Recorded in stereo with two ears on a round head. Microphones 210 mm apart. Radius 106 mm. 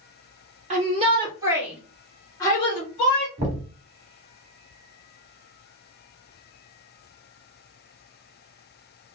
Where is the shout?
30° right (ahead or behind), 1.3 m; by 3.3 s 35° left (ahead or behind), 1.4 m.